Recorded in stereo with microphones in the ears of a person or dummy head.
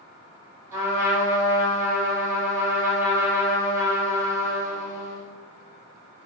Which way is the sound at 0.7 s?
15° right (ahead or behind).